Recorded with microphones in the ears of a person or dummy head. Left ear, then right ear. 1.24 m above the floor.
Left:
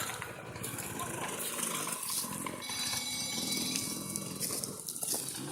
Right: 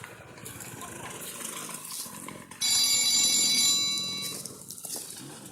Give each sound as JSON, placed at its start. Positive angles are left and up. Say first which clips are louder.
{"t": 2.6, "sound": "a phone ringing", "louder": "right 14 dB", "side_deg": -55, "distance_m": 1.2}